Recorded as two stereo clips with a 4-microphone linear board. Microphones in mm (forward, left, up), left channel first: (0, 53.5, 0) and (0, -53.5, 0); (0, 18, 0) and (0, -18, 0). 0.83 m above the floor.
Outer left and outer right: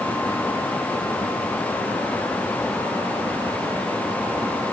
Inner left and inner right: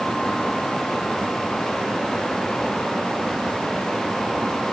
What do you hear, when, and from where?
Only background noise.